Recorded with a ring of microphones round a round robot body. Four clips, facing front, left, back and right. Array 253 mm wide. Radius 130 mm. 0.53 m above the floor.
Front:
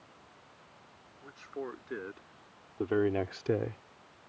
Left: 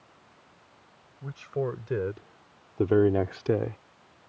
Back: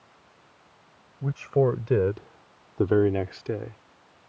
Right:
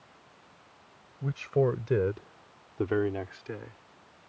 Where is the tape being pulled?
I don't hear tape being pulled.